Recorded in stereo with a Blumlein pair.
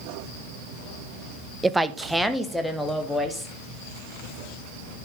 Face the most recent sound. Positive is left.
turn(degrees=0)